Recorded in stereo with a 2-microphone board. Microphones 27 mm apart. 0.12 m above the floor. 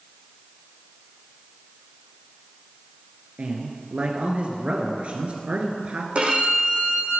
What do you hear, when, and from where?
3.4 s a man speaking: 45° right (ahead or behind), 1.9 m
6.2 s a violin: 45° right (ahead or behind), 5 m